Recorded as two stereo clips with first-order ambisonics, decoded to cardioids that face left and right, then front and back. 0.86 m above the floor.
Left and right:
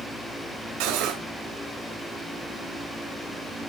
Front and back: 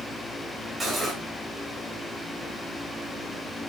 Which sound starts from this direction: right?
Cutlery clinking, at 0.8 s.